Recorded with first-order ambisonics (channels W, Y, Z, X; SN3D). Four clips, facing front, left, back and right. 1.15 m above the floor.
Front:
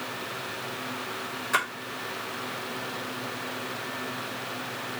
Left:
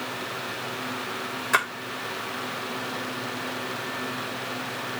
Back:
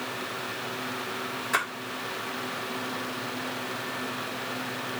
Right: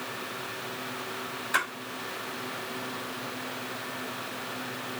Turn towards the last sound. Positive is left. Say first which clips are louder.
# left 5 dB, front 1 dB
turn(degrees=90)